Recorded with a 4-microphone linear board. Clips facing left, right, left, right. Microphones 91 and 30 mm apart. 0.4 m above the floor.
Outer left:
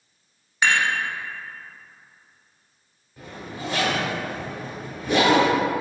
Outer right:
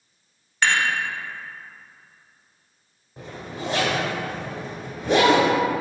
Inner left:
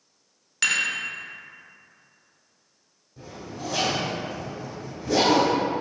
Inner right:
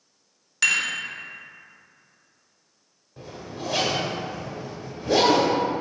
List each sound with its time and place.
0.6 s dishes clattering: 10° left (ahead or behind), 0.6 m
3.2 s a zipper: 30° right (ahead or behind), 1.0 m